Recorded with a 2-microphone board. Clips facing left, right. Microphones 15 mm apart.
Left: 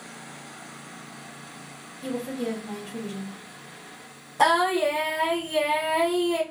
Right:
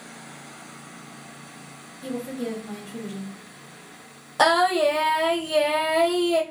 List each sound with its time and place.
2.0 s a woman speaking: 10° left (ahead or behind), 0.9 m
4.4 s singing: 60° right (ahead or behind), 2 m